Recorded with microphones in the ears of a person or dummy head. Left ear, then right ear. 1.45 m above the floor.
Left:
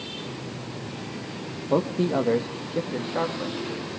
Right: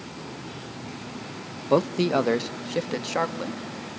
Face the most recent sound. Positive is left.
turn(degrees=-85)